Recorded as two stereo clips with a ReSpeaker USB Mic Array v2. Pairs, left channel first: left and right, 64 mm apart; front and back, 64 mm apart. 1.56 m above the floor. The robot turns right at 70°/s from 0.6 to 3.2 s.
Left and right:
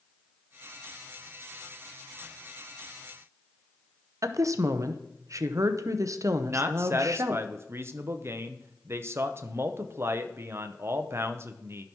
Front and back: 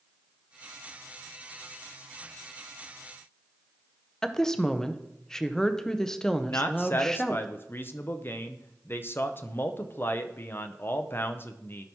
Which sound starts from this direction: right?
A woman speaking, at 4.2 s.